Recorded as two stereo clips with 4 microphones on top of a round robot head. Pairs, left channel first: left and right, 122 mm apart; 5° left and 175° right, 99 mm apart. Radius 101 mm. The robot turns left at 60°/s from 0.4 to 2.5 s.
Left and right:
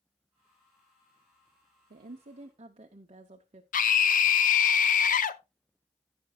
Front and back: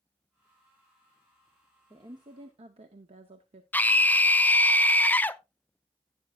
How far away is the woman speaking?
About 0.7 m.